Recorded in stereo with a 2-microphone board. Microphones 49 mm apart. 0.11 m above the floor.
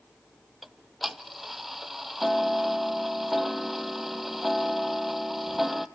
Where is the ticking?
5° right (ahead or behind), 0.6 m.